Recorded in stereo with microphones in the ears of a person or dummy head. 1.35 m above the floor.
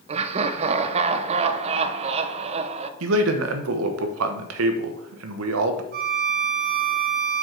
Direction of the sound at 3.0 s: 85° right.